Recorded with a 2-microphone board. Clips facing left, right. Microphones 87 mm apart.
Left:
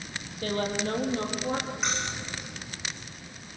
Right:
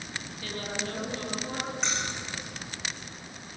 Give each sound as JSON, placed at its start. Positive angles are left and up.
{"t": 0.4, "sound": "a woman speaking", "side_deg": 45, "distance_m": 6.0}
{"t": 1.8, "sound": "keys jangling", "side_deg": 5, "distance_m": 9.5}